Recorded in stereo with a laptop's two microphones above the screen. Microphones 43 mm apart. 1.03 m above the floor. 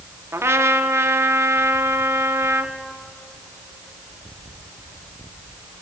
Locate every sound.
0.3 s a trumpet: 85° right, 1.3 m